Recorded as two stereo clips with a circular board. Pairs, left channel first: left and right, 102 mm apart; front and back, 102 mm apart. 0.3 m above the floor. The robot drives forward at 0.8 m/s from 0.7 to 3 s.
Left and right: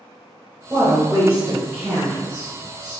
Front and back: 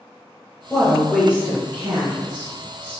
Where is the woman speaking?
65° right, 1.0 m; by 3.0 s 165° right, 1.9 m.